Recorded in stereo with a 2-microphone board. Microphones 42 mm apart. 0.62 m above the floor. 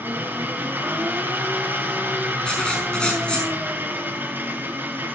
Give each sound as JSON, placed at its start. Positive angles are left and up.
{"t": 0.0, "sound": "an engine running", "side_deg": -55, "distance_m": 3.0}
{"t": 2.4, "sound": "writing", "side_deg": 20, "distance_m": 5.5}